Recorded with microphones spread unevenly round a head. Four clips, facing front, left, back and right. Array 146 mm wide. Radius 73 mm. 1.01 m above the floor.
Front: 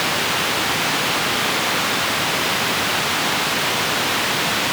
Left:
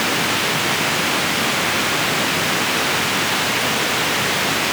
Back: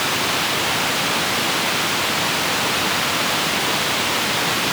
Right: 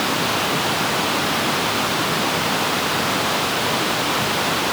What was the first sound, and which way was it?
Only background noise.